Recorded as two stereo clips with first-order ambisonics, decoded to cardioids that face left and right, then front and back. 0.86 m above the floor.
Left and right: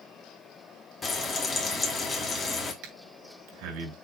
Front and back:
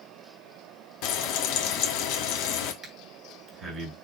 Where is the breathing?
105° right, 3.5 m.